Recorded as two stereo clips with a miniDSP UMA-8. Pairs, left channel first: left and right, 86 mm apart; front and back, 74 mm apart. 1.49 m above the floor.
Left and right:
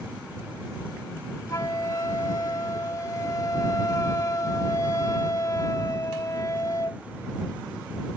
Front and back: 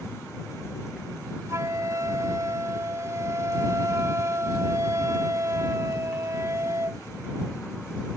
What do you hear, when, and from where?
1.5 s a flute: 135° left